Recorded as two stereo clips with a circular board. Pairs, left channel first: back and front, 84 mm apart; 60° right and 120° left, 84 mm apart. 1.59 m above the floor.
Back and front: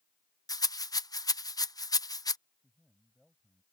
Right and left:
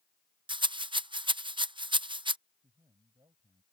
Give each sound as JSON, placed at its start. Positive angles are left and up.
{"t": 0.5, "sound": "a rattle", "azimuth_deg": 135}
{"t": 2.6, "sound": "a man speaking", "azimuth_deg": 85}